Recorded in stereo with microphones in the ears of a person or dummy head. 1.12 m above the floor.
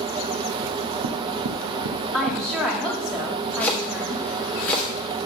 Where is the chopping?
10° left (ahead or behind), 1.1 m.